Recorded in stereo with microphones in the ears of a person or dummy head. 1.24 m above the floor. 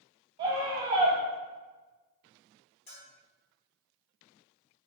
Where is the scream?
35° right (ahead or behind), 0.7 m.